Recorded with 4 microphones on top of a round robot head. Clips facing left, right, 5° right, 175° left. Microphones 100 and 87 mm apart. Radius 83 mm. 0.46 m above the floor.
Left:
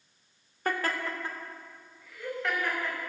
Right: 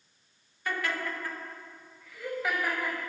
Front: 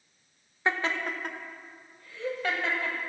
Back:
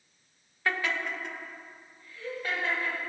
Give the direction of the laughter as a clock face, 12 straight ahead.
10 o'clock.